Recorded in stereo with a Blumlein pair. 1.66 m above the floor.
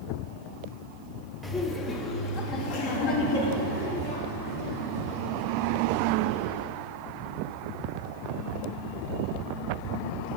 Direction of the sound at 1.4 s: Straight ahead.